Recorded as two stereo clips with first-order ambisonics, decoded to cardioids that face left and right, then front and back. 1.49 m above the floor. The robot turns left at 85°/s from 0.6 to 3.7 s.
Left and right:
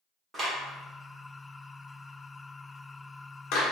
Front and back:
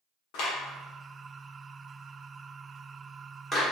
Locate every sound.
0.3 s a clap: 5° right, 1.3 m; by 3.6 s 100° left, 1.3 m